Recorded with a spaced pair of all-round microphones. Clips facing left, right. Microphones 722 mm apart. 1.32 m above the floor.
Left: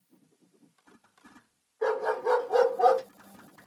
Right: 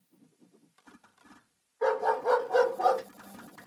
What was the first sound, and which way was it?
A dog barking, 20° right (ahead or behind).